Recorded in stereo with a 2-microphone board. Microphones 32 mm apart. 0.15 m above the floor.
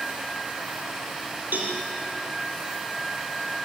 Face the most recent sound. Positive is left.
turn(degrees=-70)  # may be behind; listen again after turning